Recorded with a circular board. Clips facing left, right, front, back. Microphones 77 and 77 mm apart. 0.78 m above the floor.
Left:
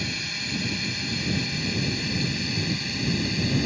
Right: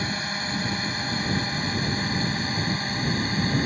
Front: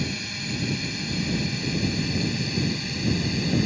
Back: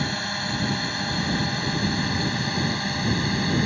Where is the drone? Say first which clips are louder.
Right 4 dB, back 4 dB; 140° right.